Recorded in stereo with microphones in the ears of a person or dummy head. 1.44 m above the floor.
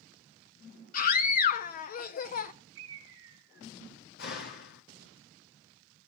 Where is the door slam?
55° left (ahead or behind), 2 m.